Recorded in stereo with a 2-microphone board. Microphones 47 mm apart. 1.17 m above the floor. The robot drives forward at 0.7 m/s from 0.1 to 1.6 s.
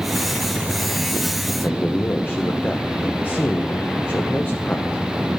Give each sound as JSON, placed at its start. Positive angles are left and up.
{"t": 1.6, "sound": "a man speaking", "side_deg": 40, "distance_m": 0.9}